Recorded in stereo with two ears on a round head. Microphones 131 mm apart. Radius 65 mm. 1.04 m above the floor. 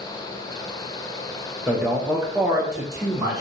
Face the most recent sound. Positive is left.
turn(degrees=-25)  # may be behind; listen again after turning